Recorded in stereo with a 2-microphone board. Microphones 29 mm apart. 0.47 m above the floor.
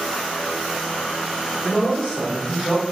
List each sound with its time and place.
1.6 s a man speaking: 25° left (ahead or behind), 1.1 m; by 2.8 s 30° left (ahead or behind), 1.5 m